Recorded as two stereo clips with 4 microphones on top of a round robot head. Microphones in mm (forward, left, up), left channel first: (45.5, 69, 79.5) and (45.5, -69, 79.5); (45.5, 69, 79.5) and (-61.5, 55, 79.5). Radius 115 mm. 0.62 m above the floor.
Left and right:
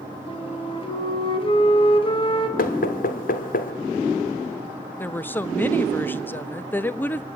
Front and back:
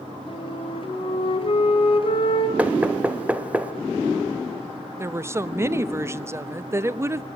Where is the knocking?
110° left, 1.9 m.